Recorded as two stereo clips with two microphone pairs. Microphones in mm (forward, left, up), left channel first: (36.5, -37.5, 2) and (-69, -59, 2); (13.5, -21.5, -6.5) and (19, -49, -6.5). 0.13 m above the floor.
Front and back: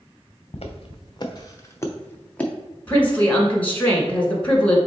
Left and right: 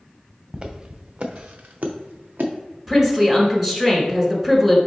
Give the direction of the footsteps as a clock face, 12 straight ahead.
1 o'clock.